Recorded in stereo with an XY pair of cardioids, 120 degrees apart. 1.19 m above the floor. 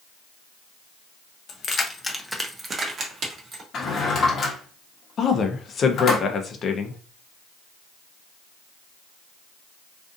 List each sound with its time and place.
1.5 s keys jangling: 45° left, 0.7 m; by 3.6 s 55° right, 1.1 m
3.7 s a drawer: 45° left, 0.9 m
5.2 s a woman speaking: 40° left, 0.6 m